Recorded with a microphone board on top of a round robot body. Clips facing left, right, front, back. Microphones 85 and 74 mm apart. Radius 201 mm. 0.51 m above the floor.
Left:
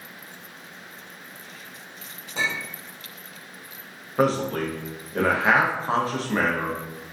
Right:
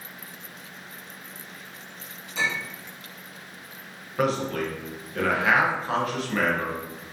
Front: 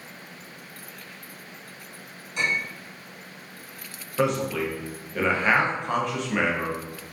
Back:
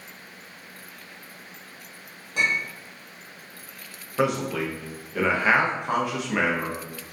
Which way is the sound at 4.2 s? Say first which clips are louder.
Left 3 dB, even; 105° left.